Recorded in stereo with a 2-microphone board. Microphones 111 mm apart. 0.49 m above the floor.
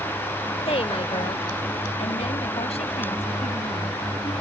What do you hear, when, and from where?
0.7 s a woman speaking: 60° left (ahead or behind); by 4.3 s 70° left (ahead or behind)